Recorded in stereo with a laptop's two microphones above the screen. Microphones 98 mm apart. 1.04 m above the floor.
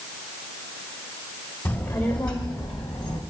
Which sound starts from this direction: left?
A child speaking, at 1.6 s.